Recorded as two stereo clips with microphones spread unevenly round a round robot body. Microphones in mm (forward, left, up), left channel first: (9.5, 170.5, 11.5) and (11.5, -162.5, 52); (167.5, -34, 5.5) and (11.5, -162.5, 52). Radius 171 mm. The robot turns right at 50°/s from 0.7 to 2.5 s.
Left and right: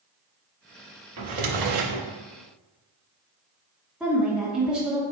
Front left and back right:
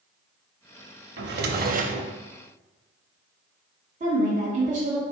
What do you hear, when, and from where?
1.2 s a drawer: 130° right, 0.7 m; by 2.1 s 80° right, 0.7 m
4.0 s a woman speaking: 175° left, 1.2 m